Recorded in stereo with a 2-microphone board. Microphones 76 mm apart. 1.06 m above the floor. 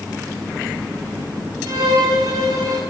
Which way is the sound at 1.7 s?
65° right (ahead or behind).